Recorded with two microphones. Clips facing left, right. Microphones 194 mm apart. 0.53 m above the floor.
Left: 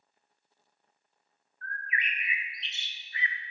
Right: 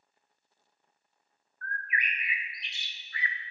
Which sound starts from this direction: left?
A bird, at 1.6 s.